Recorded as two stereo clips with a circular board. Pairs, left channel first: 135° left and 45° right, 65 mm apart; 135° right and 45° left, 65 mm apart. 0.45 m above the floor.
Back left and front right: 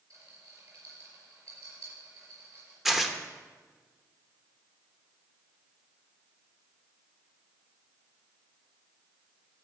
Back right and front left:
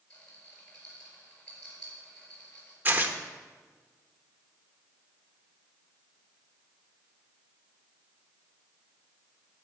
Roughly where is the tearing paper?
Ahead left.